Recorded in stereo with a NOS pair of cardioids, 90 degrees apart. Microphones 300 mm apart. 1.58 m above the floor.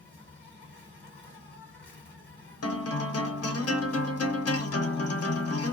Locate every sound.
0.0 s an insect: 35° left, 1.1 m
2.6 s a guitar: 50° left, 0.9 m